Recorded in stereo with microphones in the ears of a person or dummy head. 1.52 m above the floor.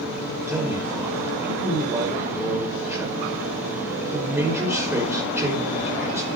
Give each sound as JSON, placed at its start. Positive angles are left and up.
{"t": 0.5, "sound": "a man speaking", "side_deg": -10, "distance_m": 5.0}